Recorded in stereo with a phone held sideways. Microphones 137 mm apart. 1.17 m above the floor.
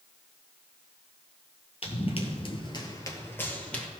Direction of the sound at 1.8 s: 45° left (ahead or behind).